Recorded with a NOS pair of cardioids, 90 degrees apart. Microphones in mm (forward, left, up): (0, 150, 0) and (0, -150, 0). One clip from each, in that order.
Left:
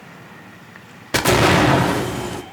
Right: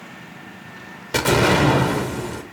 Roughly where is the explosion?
Ahead left.